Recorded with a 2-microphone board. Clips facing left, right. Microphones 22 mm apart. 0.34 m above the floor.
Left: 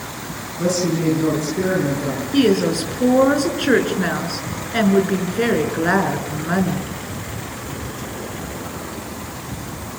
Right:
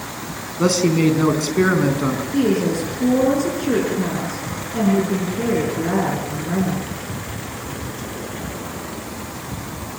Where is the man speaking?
65° right (ahead or behind), 4 m.